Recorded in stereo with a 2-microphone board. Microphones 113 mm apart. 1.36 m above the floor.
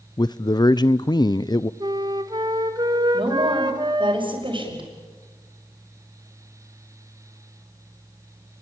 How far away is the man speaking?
About 0.6 m.